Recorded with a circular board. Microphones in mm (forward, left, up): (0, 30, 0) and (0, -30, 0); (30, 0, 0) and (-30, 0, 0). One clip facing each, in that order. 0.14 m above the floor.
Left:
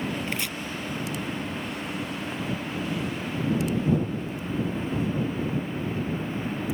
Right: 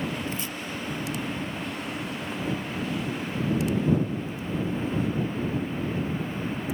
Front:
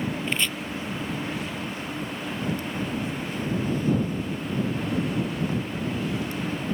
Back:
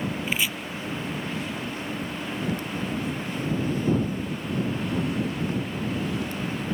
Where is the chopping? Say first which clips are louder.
Left 2 dB, back 1 dB; 100° left.